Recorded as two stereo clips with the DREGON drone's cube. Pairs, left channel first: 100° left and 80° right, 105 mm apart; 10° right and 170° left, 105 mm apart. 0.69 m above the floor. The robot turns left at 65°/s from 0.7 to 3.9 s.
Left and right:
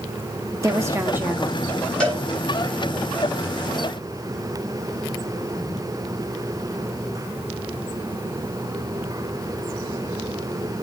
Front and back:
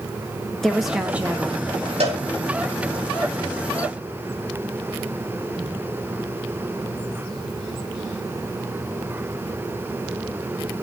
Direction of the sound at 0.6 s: 95° right.